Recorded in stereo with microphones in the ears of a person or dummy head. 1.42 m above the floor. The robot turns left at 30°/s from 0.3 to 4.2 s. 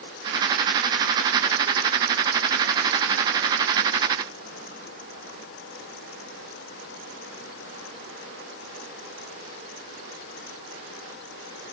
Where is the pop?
I don't hear a pop.